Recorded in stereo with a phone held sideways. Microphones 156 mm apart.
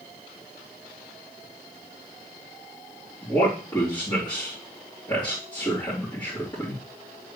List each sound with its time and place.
3.2 s a man speaking: 25° left (ahead or behind), 3 m